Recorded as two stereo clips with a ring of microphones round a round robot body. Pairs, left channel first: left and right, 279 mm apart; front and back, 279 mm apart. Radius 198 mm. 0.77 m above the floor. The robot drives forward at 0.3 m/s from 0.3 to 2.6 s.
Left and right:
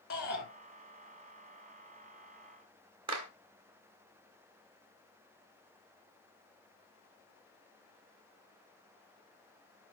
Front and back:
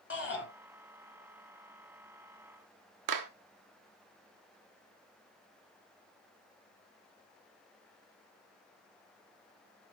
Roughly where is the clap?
Behind.